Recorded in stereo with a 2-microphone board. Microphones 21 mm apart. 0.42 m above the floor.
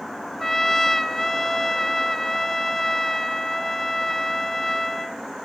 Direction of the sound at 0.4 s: 15° left (ahead or behind).